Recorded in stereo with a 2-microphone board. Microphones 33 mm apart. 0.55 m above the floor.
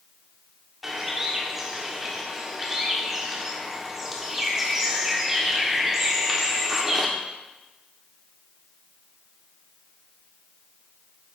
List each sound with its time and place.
0.8 s a bird: 10° right (ahead or behind), 1.6 m